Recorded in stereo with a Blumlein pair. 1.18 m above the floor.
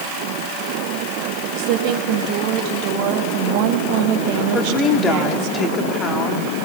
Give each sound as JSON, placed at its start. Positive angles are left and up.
{"t": 1.6, "sound": "a woman speaking", "azimuth_deg": -45, "distance_m": 2.0}
{"t": 4.5, "sound": "a woman speaking", "azimuth_deg": 20, "distance_m": 2.5}